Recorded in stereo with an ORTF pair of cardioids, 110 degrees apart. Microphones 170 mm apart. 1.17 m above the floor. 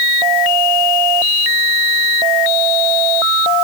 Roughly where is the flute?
I don't hear a flute.